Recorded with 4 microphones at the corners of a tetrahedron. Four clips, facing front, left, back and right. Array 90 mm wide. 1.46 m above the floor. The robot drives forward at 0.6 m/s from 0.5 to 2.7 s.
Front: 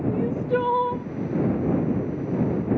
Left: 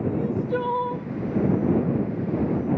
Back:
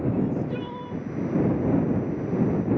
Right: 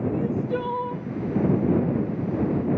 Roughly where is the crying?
Ahead.